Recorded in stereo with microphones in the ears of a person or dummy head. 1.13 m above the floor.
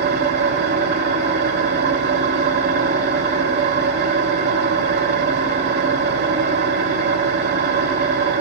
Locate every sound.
0.0 s an engine running: 50° right (ahead or behind), 0.8 m